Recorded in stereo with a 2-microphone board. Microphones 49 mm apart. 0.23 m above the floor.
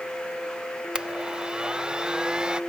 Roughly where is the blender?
Centre.